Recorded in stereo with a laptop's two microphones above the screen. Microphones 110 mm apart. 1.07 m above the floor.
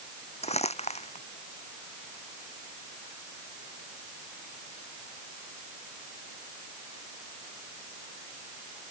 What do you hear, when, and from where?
0.4 s crumpling: 80° left